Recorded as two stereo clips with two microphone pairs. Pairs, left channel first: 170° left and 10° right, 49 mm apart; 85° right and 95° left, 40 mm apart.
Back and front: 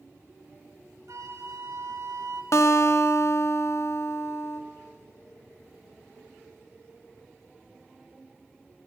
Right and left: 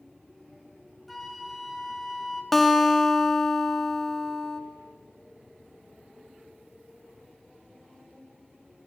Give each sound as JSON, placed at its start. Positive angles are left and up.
{"t": 1.1, "sound": "a flute", "azimuth_deg": 0, "distance_m": 1.9}
{"t": 2.5, "sound": "a guitar", "azimuth_deg": -165, "distance_m": 1.0}